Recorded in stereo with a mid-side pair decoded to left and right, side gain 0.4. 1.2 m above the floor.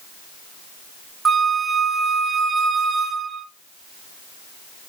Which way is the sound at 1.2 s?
45° right.